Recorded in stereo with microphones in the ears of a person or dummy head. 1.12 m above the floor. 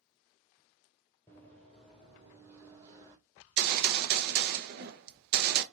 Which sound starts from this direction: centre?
Running footsteps, at 1.3 s.